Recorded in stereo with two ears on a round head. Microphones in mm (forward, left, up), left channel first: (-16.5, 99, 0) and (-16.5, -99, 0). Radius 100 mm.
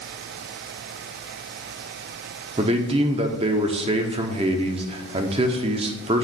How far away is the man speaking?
About 0.8 m.